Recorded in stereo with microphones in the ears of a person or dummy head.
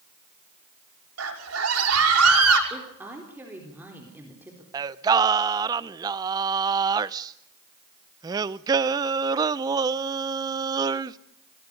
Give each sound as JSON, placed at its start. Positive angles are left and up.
{"t": 1.2, "sound": "a scream", "side_deg": -85, "distance_m": 6.5}
{"t": 2.7, "sound": "a woman speaking", "side_deg": -10, "distance_m": 4.0}
{"t": 4.7, "sound": "singing", "side_deg": -20, "distance_m": 0.7}